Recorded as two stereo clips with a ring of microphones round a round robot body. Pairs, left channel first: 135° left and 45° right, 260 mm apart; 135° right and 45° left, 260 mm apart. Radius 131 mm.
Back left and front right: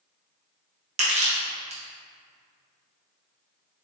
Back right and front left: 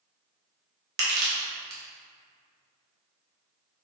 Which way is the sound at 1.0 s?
10° left.